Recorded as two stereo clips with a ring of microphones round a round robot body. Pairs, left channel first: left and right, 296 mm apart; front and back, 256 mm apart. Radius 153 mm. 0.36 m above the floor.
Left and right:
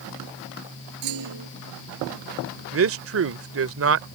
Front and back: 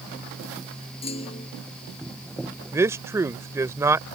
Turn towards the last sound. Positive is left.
turn(degrees=-105)